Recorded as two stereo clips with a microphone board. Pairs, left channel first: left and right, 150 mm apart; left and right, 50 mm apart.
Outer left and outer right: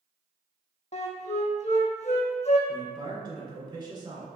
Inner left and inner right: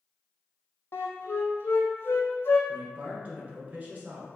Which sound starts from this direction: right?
A man speaking, at 2.7 s.